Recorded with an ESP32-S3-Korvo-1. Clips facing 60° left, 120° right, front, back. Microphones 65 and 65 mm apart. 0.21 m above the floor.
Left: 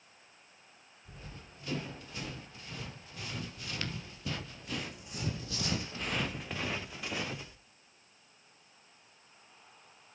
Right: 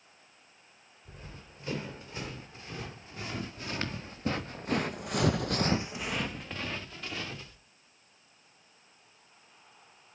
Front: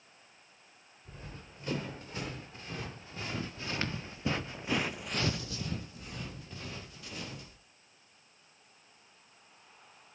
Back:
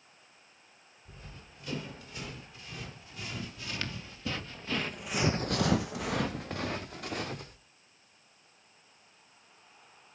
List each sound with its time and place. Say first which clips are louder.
1.1 s running footsteps: right 1 dB, front 3 dB; 60° right, 5 m; by 7.6 s 135° left, 2.5 m